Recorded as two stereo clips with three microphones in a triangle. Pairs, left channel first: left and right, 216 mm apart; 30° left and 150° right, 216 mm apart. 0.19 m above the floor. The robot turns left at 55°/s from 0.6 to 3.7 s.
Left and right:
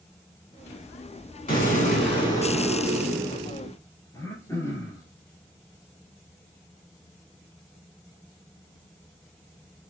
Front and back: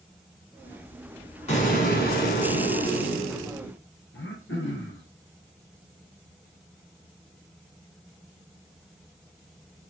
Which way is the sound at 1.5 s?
75° left.